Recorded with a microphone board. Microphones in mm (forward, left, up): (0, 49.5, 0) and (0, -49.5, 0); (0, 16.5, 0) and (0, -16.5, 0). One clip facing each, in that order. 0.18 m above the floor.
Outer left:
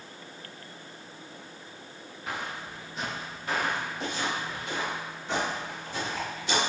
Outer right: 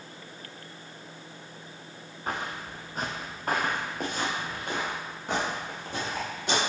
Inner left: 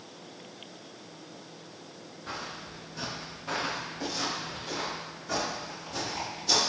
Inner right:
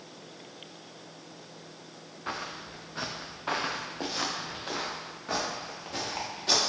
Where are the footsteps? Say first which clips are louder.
Outer right 2 dB, inner right 2 dB; 40° right (ahead or behind), 1.0 m; by 6.6 s 55° right (ahead or behind), 3.5 m.